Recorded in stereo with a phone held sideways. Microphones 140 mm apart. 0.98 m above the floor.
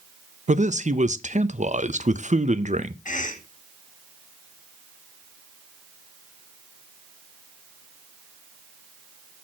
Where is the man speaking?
60° right (ahead or behind), 0.6 m.